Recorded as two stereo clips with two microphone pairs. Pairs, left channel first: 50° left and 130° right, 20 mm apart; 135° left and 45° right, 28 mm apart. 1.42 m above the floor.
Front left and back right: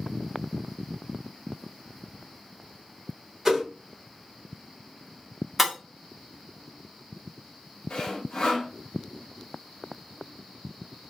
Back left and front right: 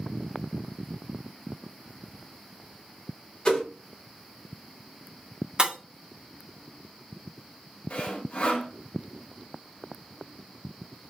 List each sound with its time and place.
3.5 s a whoosh: 175° left, 1.9 m
5.6 s breaking glass: 50° right, 1.0 m
7.9 s sawing: 100° left, 0.8 m